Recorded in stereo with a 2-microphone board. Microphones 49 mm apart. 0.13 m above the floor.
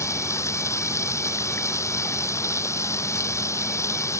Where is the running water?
75° left (ahead or behind).